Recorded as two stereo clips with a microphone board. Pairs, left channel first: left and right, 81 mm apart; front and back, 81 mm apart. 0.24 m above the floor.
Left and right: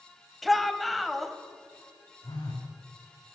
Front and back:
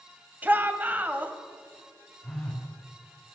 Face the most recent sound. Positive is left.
turn(degrees=85)